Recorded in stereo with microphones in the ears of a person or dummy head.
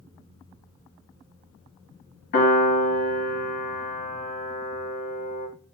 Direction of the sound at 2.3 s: 50° left (ahead or behind).